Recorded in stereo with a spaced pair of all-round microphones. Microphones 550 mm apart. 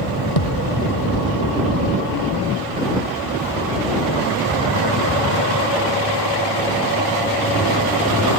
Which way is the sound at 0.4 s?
85° left.